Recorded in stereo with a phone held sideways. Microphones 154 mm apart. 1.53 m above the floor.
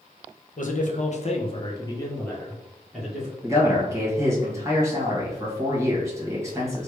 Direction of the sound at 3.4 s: 20° right (ahead or behind).